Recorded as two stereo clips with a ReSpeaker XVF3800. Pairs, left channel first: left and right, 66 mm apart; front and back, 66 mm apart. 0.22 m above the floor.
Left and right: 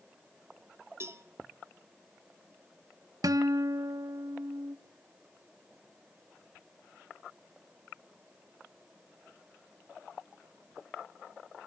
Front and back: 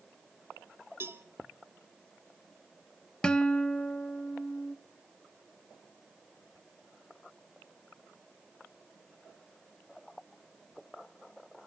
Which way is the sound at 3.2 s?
75° right.